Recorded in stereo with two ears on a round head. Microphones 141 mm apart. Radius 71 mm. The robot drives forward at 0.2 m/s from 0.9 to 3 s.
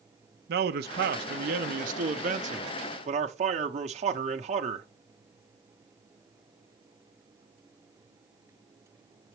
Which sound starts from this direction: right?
A man speaking, at 0.5 s.